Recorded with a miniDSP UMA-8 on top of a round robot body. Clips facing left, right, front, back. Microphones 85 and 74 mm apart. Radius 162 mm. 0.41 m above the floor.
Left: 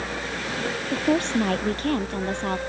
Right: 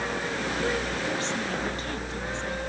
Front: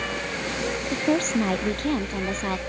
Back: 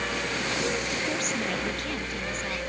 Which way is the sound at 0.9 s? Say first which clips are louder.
Left 7 dB, front 7 dB; 55° left.